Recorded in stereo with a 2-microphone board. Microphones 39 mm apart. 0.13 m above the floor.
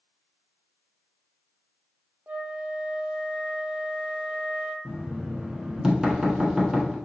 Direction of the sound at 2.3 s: 45° right (ahead or behind).